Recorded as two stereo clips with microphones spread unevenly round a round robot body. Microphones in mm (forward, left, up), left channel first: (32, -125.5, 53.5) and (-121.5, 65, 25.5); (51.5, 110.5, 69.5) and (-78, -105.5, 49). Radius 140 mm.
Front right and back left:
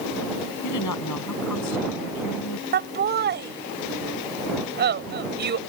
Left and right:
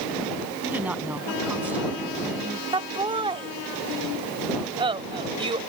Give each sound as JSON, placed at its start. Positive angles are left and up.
{"t": 0.6, "sound": "a woman speaking", "azimuth_deg": -35}
{"t": 2.7, "sound": "laughter", "azimuth_deg": 170}